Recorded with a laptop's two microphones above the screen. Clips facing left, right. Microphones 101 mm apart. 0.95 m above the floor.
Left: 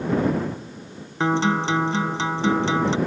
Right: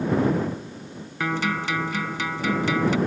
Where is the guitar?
30° left (ahead or behind).